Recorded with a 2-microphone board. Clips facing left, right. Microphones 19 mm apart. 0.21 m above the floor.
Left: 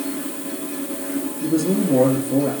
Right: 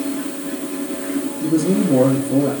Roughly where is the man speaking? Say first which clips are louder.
Right 2 dB; centre.